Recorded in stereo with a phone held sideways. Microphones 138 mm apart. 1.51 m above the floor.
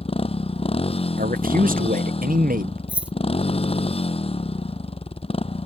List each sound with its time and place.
0.0 s a motorcycle: 45° left (ahead or behind)
1.2 s a man speaking: 85° right
2.9 s keys jangling: 10° right (ahead or behind)